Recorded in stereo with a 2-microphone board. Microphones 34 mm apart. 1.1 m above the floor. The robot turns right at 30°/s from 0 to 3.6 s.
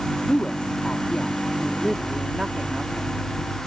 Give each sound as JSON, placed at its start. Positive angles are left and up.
{"t": 0.3, "sound": "a woman speaking", "azimuth_deg": 130}